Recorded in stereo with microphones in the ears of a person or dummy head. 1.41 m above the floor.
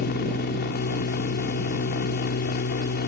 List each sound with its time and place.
0.0 s a machine running: 50° left (ahead or behind)